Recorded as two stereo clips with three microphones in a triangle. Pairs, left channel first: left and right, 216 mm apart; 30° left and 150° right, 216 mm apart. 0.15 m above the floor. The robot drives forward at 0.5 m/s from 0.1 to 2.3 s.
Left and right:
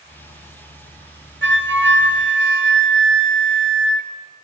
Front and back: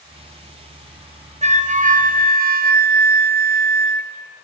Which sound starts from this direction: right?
A flute, at 1.4 s.